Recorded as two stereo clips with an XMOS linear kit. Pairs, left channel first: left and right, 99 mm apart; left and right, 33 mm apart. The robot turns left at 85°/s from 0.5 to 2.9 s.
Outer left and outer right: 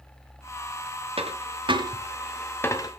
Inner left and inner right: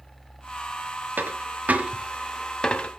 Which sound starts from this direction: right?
A dropped coin, at 1.2 s.